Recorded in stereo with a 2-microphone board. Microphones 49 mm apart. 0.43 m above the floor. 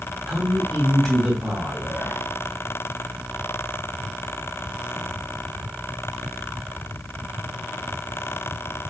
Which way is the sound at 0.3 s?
10° left (ahead or behind).